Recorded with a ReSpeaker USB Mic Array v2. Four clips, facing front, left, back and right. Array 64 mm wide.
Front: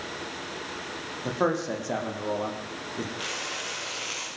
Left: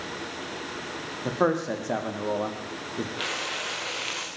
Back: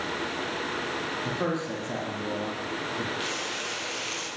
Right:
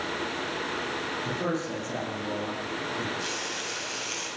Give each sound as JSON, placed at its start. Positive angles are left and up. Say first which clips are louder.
{"t": 1.2, "sound": "a man speaking", "louder": "left 8 dB, front 6 dB", "azimuth_deg": 65, "distance_m": 7.0}
{"t": 3.2, "sound": "frying", "louder": "left 2 dB, back 2 dB", "azimuth_deg": 95, "distance_m": 9.0}